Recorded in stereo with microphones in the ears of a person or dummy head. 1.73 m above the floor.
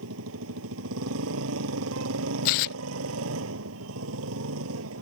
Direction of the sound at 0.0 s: 75° right (ahead or behind).